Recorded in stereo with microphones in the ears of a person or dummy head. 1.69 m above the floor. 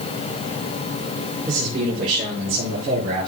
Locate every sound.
1.5 s a man speaking: 50° right (ahead or behind), 6 m